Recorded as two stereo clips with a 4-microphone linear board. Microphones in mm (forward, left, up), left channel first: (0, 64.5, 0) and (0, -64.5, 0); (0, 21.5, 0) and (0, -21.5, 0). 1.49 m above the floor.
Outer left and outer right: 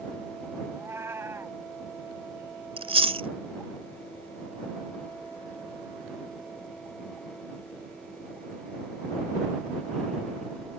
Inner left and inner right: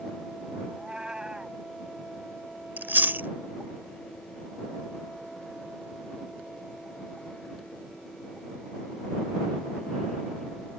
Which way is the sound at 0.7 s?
20° right (ahead or behind).